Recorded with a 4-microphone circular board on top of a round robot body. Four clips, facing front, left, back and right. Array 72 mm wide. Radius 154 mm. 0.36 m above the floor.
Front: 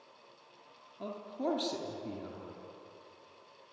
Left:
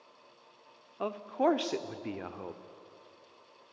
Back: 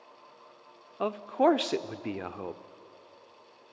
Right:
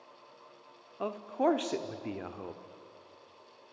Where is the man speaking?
170° left, 1.3 m.